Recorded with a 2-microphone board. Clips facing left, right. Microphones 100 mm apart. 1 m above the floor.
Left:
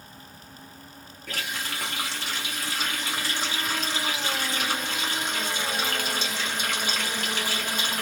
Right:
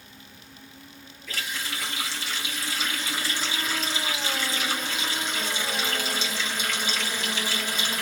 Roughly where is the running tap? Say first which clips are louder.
Left 1 dB; left.